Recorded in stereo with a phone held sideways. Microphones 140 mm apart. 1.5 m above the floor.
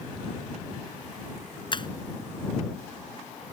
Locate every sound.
1.7 s breaking glass: 35° left (ahead or behind)